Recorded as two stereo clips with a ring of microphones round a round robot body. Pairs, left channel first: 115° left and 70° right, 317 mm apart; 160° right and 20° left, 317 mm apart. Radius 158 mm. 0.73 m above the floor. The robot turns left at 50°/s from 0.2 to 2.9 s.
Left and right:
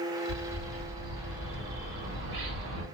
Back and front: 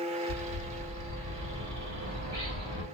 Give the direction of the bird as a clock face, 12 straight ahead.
10 o'clock.